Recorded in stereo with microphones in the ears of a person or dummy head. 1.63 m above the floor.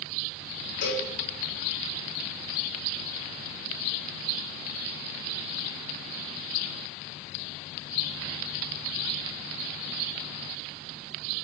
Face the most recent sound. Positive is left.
turn(degrees=50)  # may be behind; listen again after turning